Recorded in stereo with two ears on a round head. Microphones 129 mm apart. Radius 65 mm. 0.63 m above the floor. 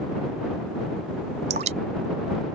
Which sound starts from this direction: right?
Dripping, at 1.5 s.